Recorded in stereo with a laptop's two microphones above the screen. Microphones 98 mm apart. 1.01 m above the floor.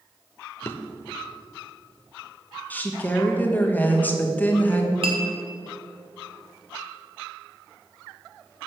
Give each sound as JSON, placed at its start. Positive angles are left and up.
{"t": 0.6, "sound": "a drawer", "side_deg": 25, "distance_m": 0.8}
{"t": 2.7, "sound": "a woman speaking", "side_deg": 20, "distance_m": 1.2}
{"t": 5.0, "sound": "a clink", "side_deg": -65, "distance_m": 1.9}